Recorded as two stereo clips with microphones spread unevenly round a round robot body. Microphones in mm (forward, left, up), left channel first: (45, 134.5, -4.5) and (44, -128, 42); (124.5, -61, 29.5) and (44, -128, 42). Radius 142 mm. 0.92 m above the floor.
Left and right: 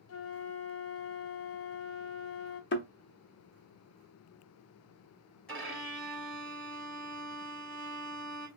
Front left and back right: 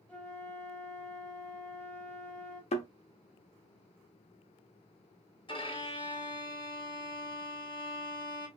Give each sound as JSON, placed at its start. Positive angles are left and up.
{"t": 0.1, "sound": "a flute", "azimuth_deg": 120, "distance_m": 0.5}
{"t": 2.7, "sound": "a thud", "azimuth_deg": 40, "distance_m": 0.8}
{"t": 5.5, "sound": "a violin", "azimuth_deg": 5, "distance_m": 2.5}